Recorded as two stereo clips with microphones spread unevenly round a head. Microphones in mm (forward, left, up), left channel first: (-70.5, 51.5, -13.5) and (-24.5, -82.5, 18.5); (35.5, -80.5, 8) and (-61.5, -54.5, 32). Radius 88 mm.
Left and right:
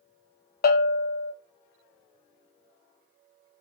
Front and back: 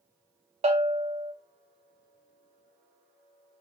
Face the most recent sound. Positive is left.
turn(degrees=130)